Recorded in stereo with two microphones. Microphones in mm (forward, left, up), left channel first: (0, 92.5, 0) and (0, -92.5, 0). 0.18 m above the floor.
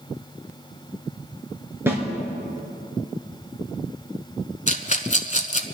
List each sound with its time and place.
1.9 s a snare drum: 15° right (ahead or behind), 3 m
4.7 s a rattle: 40° left (ahead or behind), 0.9 m